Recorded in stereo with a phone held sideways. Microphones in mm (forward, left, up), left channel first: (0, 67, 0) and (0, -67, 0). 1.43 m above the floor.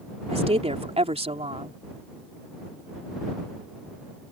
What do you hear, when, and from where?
0.3 s a woman speaking: 50° right (ahead or behind)